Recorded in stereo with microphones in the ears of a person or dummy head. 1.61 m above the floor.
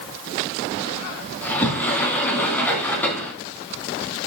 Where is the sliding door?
10° left (ahead or behind), 3 m.